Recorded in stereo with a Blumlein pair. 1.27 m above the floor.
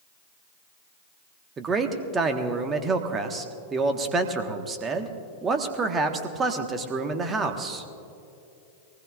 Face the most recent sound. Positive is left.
turn(degrees=-20)